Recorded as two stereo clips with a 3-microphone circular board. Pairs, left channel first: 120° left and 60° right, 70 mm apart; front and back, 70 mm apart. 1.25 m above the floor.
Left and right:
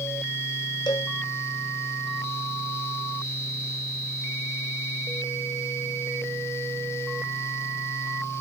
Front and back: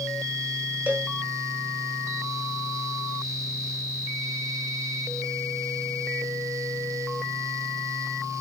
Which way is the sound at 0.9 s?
115° left.